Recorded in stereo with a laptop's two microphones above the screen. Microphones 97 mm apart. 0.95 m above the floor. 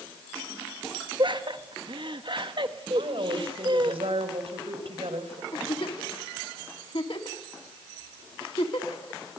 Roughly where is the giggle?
Left.